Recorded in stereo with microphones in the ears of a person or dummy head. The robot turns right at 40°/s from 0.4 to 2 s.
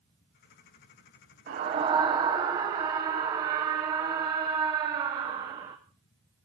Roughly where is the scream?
Right.